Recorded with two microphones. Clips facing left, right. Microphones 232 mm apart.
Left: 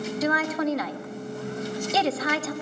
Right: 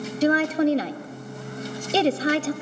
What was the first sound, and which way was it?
A woman speaking, 30° right (ahead or behind).